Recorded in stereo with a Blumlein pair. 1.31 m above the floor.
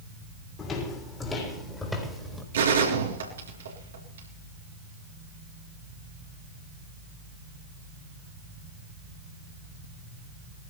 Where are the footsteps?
25° left, 4 m; by 2.4 s straight ahead, 3.5 m.